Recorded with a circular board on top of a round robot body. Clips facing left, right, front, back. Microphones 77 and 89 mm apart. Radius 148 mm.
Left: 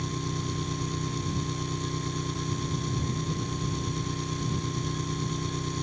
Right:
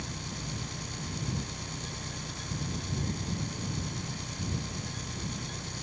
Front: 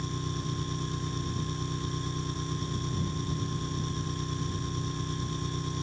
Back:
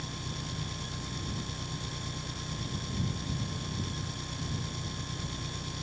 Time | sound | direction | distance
0.0 | an engine running | 55° left | ?